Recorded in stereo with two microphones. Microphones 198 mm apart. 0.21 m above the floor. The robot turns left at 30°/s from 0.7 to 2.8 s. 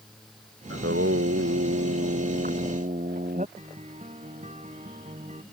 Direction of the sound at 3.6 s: 35° right (ahead or behind).